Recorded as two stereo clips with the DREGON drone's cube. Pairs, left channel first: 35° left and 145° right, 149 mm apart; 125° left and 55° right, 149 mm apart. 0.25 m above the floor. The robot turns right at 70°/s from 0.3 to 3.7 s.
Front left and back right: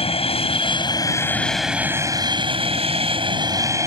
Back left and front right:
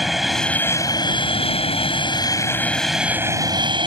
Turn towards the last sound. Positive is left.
turn(degrees=-90)